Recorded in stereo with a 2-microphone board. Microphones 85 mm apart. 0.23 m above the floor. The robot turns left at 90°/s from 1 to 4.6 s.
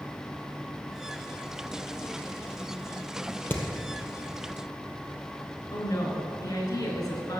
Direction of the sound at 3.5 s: 25° left (ahead or behind).